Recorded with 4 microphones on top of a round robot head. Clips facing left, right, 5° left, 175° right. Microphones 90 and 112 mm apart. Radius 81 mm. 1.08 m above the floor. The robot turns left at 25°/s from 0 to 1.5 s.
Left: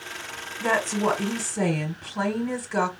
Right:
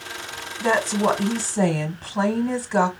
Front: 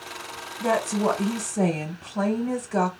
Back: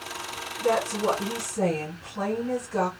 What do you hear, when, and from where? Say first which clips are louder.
0.6 s a woman speaking: right 3 dB, front 1 dB; straight ahead, 1.4 m; by 2.9 s 25° right, 1.4 m